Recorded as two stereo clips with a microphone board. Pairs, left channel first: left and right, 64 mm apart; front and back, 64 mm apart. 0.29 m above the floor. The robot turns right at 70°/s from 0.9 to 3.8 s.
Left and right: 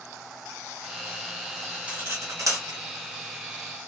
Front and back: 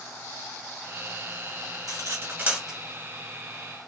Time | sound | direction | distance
1.9 | cutlery clinking | 160° right | 1.6 m